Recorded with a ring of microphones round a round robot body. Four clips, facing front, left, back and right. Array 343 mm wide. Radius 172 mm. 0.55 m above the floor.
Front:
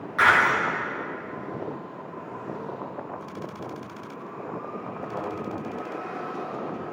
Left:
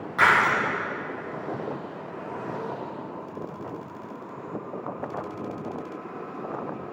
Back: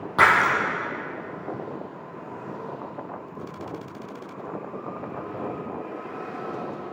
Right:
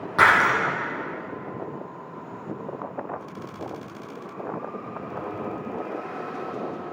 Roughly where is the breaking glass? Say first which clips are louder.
Right 2 dB, back 1 dB; behind right.